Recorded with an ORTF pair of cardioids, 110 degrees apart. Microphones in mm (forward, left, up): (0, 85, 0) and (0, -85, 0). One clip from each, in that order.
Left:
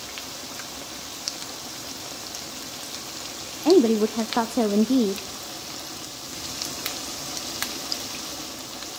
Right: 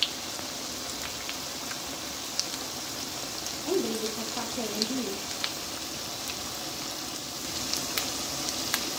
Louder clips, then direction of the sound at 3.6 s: Left 12 dB; 65° left.